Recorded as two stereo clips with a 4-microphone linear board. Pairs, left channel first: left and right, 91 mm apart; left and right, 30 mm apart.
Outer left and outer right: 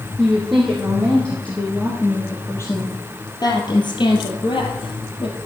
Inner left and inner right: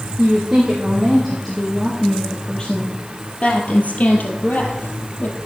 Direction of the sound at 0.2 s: Centre (ahead or behind).